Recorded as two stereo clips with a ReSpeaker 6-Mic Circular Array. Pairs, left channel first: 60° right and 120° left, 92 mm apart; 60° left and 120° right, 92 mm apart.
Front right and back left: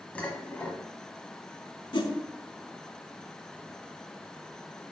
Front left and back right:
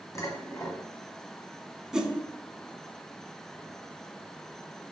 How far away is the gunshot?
I don't hear a gunshot.